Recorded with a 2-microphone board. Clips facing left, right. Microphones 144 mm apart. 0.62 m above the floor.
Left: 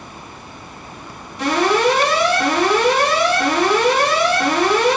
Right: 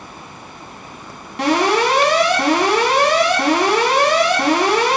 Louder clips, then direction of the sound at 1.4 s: Even; 65° right (ahead or behind).